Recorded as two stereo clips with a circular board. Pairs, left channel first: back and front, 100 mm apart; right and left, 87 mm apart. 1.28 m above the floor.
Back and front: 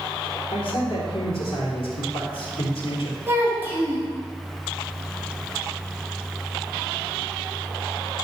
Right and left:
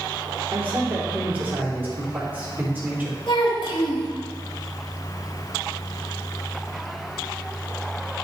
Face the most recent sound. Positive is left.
turn(degrees=-65)